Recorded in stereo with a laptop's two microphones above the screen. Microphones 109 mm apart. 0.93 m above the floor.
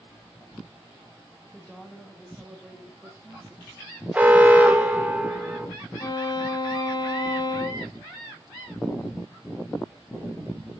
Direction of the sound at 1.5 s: 15° left (ahead or behind).